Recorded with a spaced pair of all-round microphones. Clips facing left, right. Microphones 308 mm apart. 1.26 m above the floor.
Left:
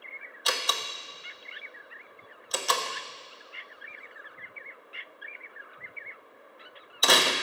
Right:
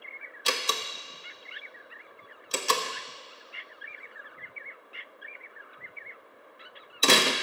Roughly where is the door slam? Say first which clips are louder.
Right 2 dB; right.